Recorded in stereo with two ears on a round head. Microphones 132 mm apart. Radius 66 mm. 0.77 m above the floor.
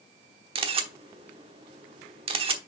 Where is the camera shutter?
40° right (ahead or behind), 1.0 m.